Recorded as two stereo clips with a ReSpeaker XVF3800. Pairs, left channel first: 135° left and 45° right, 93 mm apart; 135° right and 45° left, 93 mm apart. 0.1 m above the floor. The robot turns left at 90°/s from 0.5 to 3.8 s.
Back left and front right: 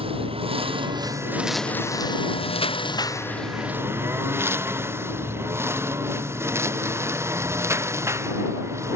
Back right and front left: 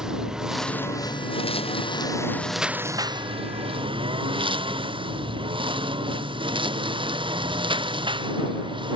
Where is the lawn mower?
40° right; by 9.0 s 15° left.